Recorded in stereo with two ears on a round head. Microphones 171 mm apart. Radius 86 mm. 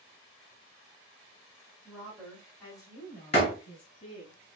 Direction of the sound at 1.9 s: 5° right (ahead or behind).